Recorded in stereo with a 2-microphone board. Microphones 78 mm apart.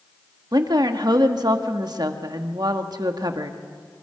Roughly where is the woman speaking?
Right.